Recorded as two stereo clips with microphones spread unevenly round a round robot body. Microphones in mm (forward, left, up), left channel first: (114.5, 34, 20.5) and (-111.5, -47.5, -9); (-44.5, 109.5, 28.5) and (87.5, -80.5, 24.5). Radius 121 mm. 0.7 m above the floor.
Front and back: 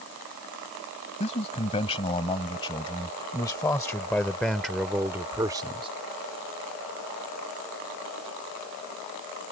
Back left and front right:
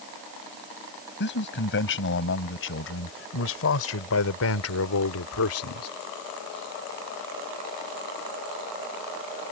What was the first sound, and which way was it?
A man speaking, 85° left.